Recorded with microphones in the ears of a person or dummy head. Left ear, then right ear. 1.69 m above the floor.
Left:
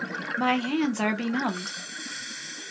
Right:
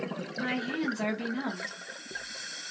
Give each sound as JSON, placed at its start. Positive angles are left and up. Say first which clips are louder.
{"t": 0.4, "sound": "a woman speaking", "louder": "left 7 dB", "side_deg": 45, "distance_m": 0.6}